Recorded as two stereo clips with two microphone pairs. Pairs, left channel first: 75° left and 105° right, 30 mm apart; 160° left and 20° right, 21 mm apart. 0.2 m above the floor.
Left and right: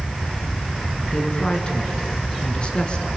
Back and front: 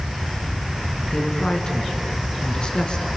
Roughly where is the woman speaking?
Behind left.